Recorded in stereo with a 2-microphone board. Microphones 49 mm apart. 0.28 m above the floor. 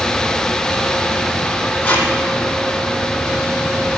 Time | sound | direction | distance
1.8 | tape being pulled | 25° left (ahead or behind) | 3 m